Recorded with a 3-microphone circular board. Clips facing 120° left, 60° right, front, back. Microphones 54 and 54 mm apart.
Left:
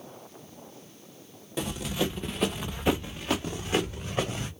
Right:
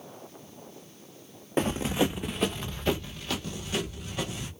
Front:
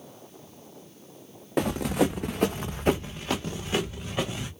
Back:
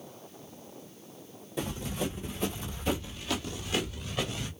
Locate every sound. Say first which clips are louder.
1.6 s running footsteps: right 4 dB, front 10 dB; 15° right, 1.0 m; by 4.5 s 70° left, 2.5 m